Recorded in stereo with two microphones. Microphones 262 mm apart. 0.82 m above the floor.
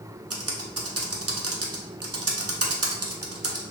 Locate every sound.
0.3 s typing on a keyboard: 65° right (ahead or behind), 0.5 m